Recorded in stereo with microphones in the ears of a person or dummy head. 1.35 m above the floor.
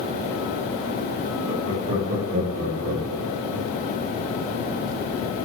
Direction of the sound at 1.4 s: 35° right (ahead or behind).